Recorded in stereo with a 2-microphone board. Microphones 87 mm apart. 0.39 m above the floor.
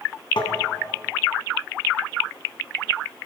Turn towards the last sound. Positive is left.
turn(degrees=75)  # may be behind; listen again after turning